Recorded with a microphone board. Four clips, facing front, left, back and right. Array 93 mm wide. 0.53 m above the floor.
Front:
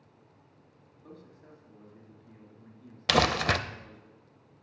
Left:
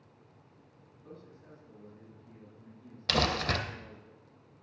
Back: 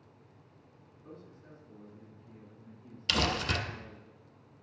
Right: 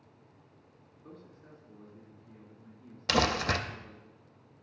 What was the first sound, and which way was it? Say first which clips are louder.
A man speaking: left 1 dB, even; 5° left.